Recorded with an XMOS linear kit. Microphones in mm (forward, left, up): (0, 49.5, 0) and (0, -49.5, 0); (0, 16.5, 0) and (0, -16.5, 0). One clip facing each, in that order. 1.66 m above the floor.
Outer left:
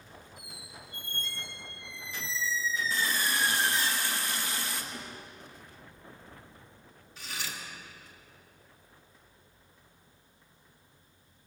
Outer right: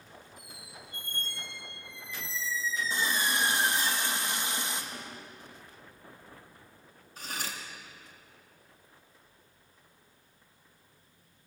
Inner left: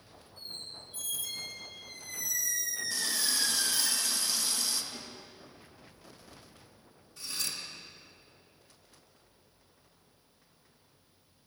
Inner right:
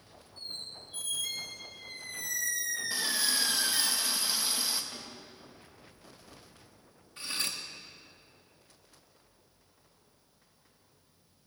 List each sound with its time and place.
0.4 s a squeak: 45° right (ahead or behind), 3.5 m
2.9 s a running tap: 20° right (ahead or behind), 1.0 m
4.9 s a snare drum: 30° right (ahead or behind), 3.5 m
7.2 s cutlery clinking: 45° right (ahead or behind), 1.4 m